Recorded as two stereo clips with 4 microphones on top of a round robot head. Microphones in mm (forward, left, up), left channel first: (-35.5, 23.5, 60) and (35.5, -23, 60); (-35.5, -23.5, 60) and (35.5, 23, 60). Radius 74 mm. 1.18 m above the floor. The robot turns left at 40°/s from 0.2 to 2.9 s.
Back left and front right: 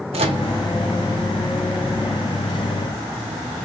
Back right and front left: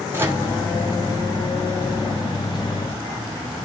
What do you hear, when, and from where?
0.1 s a microwave: 35° right, 0.6 m; by 0.4 s 45° right, 0.6 m